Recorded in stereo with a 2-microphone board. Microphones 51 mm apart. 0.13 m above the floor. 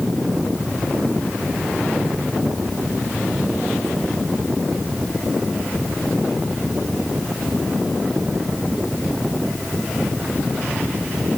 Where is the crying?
No crying in this recording.